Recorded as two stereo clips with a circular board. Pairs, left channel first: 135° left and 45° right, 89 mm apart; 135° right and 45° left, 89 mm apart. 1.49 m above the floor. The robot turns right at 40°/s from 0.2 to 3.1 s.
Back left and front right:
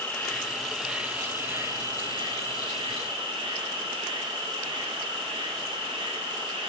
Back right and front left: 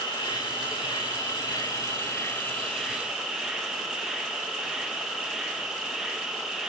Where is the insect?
155° right, 3.5 m; by 6.7 s 40° right, 3.5 m.